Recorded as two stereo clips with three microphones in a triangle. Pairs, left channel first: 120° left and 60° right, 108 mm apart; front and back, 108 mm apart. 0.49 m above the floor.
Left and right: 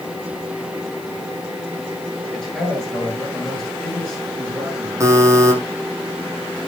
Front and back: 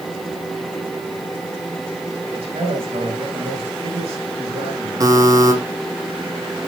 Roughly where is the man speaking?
Behind right.